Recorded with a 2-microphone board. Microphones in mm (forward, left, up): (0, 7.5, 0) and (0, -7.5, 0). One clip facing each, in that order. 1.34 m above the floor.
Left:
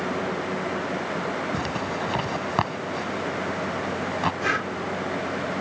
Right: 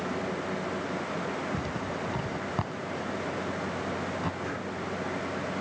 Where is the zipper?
50° left (ahead or behind).